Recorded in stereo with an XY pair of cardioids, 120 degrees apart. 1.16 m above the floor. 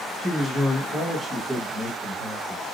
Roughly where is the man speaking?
Ahead.